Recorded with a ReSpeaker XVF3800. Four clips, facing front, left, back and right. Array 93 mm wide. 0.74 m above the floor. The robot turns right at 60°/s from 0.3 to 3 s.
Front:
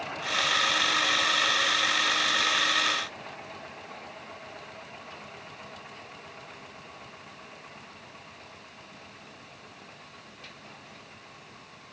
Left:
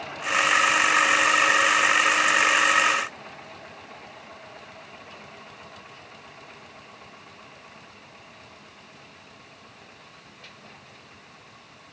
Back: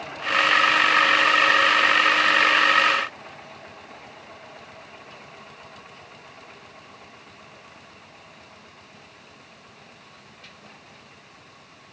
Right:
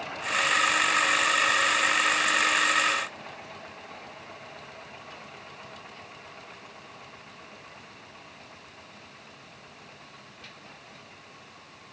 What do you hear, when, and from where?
Only background noise.